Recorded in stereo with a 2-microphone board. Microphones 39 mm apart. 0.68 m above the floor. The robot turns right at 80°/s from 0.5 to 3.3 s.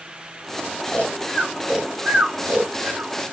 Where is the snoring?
40° left (ahead or behind), 1.1 m; by 3.1 s 40° right (ahead or behind), 1.1 m.